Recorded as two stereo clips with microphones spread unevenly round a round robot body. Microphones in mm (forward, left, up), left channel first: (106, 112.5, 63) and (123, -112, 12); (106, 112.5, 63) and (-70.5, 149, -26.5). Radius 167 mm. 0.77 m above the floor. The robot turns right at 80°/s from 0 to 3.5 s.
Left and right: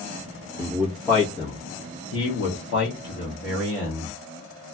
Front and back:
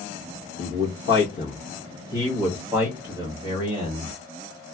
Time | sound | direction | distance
0.6 | a man speaking | 45° right | 1.0 m